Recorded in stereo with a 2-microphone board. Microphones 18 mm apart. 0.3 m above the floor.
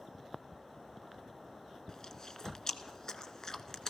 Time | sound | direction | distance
1.9 | chewing | 30° left (ahead or behind) | 0.6 m